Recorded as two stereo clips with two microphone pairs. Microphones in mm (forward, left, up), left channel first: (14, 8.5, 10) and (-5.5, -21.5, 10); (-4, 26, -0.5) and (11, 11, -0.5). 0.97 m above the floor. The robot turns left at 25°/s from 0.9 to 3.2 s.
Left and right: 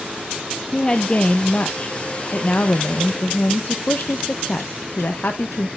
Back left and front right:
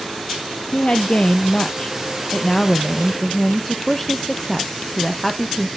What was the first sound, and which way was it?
A woman speaking, 120° left.